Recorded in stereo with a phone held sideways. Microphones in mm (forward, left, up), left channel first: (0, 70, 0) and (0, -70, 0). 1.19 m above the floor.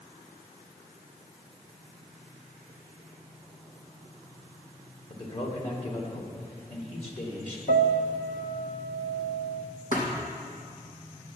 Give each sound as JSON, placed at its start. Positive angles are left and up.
{"t": 5.1, "sound": "a man speaking", "side_deg": 45, "distance_m": 2.5}
{"t": 7.7, "sound": "a piano", "side_deg": 65, "distance_m": 1.0}
{"t": 9.9, "sound": "a thud", "side_deg": 60, "distance_m": 2.5}